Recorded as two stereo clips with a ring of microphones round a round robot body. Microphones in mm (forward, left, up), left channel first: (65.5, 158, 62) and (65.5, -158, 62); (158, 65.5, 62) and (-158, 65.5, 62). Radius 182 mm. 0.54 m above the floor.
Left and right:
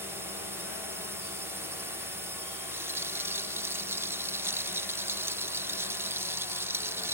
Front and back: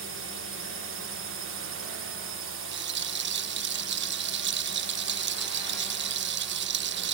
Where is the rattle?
170° right.